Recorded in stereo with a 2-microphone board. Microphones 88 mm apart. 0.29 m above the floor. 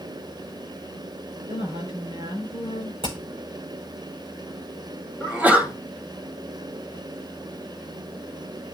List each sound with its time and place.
1.5 s a woman speaking: 75° right (ahead or behind), 4.5 m
3.0 s hammering: 90° right, 6.5 m
5.2 s a sneeze: 20° right (ahead or behind), 1.7 m